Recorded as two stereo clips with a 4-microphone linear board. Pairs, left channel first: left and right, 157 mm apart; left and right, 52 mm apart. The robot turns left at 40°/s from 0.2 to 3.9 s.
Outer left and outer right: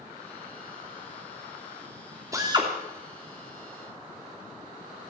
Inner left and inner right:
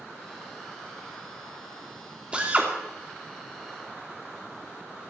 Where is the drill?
20° right (ahead or behind), 3 m; by 2.7 s 35° right (ahead or behind), 3 m.